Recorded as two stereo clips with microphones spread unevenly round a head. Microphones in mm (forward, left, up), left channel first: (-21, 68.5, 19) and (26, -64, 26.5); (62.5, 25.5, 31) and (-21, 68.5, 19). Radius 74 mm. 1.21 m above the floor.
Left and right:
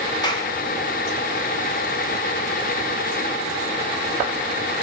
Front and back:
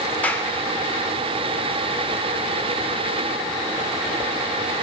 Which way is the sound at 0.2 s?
45° left.